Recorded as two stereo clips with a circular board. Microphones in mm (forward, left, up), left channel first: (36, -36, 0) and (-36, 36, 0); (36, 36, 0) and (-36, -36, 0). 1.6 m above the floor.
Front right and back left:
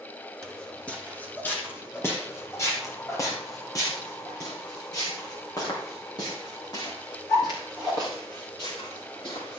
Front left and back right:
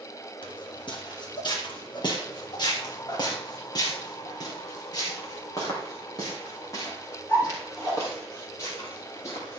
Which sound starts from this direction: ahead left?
Footsteps, at 0.4 s.